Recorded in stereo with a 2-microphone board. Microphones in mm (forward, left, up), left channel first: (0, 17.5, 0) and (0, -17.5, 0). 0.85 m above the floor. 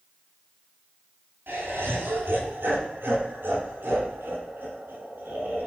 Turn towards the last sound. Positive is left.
turn(degrees=-85)